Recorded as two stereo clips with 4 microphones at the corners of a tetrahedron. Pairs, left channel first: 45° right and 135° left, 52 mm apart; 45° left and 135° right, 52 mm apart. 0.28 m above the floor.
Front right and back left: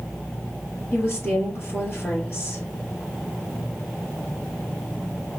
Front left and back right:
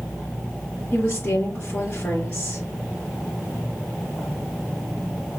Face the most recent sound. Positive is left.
turn(degrees=0)